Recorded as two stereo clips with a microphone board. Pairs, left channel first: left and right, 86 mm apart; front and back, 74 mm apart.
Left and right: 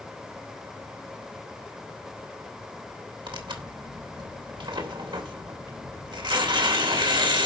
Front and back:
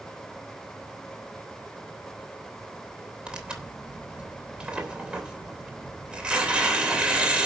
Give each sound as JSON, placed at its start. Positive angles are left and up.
{"t": 3.3, "sound": "tearing paper", "azimuth_deg": -105, "distance_m": 3.0}